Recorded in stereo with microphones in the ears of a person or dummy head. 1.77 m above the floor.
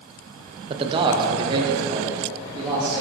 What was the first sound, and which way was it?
A man speaking, 30° right (ahead or behind).